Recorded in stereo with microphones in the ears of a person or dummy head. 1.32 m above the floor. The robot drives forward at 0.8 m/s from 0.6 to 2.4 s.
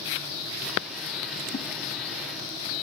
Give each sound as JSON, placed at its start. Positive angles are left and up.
{"t": 1.5, "sound": "a whoosh", "side_deg": 30, "distance_m": 0.7}